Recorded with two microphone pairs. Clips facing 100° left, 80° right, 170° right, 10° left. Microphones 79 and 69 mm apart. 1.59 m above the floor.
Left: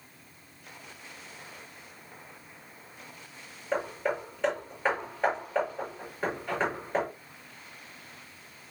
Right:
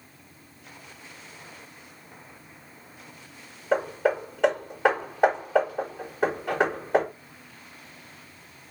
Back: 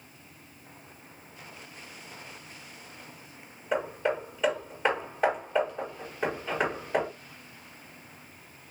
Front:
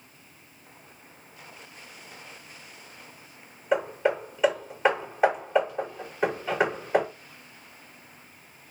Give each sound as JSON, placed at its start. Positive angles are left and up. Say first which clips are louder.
{"t": 3.7, "sound": "hammering", "louder": "right 6 dB, front 4 dB", "azimuth_deg": -70, "distance_m": 5.0}